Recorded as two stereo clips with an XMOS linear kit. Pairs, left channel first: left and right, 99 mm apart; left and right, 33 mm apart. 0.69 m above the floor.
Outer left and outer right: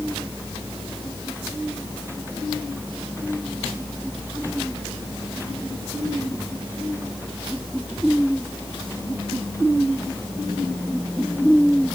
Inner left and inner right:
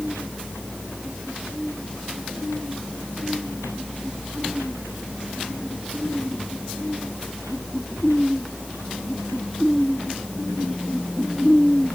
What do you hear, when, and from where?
Only background noise.